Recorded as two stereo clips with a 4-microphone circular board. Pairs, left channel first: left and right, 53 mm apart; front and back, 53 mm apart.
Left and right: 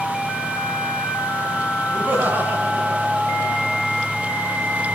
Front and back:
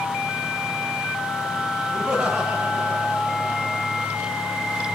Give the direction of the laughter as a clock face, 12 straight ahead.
4 o'clock.